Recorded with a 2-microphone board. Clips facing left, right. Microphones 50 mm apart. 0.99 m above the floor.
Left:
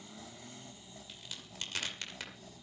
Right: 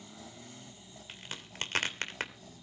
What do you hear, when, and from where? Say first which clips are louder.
1.1 s a crack: right 6 dB; 45° right (ahead or behind), 2.5 m